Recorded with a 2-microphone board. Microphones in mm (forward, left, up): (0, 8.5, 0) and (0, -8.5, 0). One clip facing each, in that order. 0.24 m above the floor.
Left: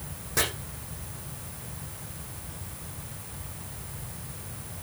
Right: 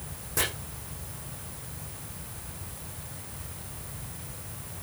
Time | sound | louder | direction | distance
0.4 | chopping | left 3 dB | 30° left (ahead or behind) | 6.5 m